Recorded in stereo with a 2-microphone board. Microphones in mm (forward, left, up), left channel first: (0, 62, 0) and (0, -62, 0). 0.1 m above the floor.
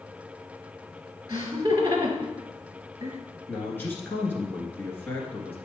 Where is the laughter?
30° right (ahead or behind), 1.3 m.